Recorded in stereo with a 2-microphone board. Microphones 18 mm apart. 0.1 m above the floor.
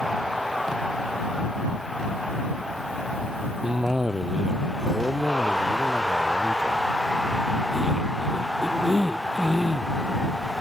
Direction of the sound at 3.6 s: 30° right (ahead or behind).